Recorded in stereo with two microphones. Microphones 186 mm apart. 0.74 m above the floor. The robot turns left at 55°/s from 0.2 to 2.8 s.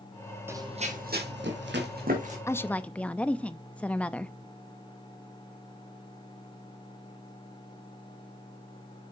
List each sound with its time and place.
0.5 s running footsteps: 15° right (ahead or behind), 1.8 m; by 2.4 s 35° right (ahead or behind), 3 m
2.5 s a woman speaking: 15° left (ahead or behind), 0.6 m; by 4.3 s 5° left (ahead or behind), 0.6 m